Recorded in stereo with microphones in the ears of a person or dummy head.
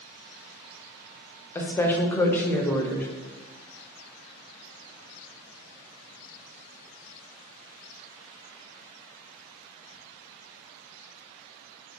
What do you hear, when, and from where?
1.6 s a woman speaking: 15° left (ahead or behind), 0.5 m